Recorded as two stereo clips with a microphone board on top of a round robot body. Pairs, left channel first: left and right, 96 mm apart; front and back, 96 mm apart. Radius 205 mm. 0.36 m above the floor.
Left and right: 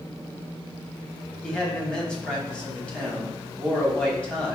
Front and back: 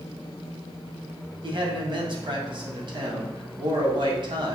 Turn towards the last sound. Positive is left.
turn(degrees=170)